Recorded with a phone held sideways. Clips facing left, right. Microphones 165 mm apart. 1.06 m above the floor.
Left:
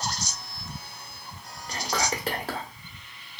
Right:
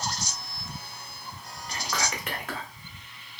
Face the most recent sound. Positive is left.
turn(degrees=35)  # may be behind; listen again after turning